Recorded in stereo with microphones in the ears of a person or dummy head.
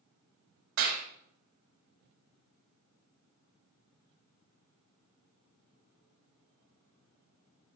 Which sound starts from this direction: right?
A clap, at 0.8 s.